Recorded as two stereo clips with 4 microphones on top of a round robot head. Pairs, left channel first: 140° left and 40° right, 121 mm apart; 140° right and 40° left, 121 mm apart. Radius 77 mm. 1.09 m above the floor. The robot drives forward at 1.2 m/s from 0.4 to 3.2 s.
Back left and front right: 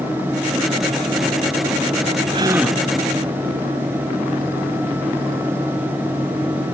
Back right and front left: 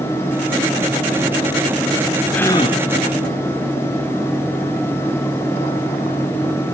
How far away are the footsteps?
No footsteps in this recording.